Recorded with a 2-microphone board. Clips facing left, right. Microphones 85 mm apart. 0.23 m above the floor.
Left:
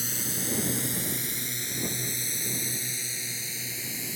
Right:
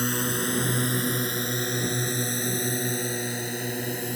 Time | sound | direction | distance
0.0 | a drone | 60° right (ahead or behind) | ?